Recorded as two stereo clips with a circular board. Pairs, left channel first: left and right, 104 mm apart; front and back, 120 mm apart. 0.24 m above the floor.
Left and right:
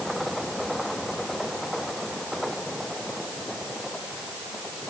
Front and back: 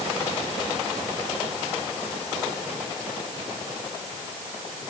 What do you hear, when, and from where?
Only background noise.